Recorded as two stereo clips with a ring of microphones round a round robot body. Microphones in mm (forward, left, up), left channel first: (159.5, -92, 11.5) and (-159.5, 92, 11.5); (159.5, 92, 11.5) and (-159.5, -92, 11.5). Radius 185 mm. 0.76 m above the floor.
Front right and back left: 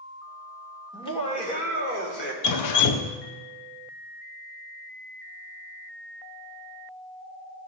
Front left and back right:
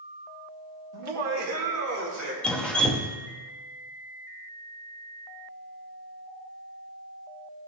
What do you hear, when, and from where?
0.9 s laughter: 110° right, 1.7 m; by 2.3 s 90° right, 2.5 m
2.4 s dripping: 55° right, 0.6 m